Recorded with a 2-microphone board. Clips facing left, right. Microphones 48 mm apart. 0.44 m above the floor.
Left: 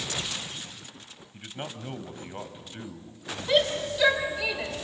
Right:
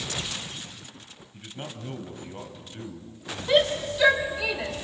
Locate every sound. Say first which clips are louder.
1.3 s a man speaking: left 1 dB; 25° left (ahead or behind), 2 m
3.5 s a shout: right 2 dB; 10° right (ahead or behind), 1.9 m